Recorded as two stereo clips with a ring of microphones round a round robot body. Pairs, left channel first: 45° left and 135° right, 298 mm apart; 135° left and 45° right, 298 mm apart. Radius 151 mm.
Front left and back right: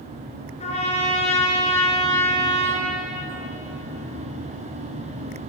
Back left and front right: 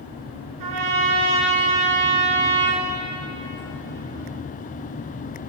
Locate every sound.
0.6 s a trumpet: 25° right, 3 m